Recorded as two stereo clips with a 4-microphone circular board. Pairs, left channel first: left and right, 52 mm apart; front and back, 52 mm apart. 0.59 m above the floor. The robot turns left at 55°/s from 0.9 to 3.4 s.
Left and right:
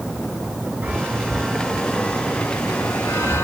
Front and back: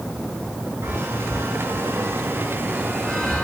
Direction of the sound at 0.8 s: 145° right.